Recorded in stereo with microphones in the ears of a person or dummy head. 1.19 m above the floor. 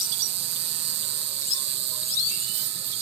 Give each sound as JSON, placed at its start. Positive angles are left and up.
{"t": 0.0, "sound": "an insect", "side_deg": -55}